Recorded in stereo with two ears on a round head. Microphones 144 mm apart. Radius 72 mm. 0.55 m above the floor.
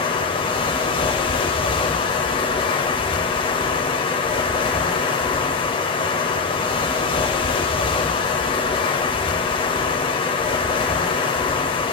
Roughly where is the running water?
Left.